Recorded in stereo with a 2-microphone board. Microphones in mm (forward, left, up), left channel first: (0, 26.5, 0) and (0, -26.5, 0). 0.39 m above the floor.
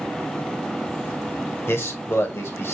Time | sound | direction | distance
1.7 | a man speaking | 50° left (ahead or behind) | 1.2 m